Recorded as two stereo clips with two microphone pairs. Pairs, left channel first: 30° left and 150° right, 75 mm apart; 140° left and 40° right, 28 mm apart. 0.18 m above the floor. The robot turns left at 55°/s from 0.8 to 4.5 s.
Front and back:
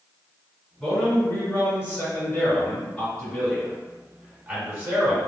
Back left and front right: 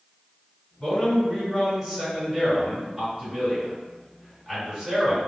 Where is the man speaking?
100° left, 1.8 m; by 5.2 s 100° right, 1.8 m.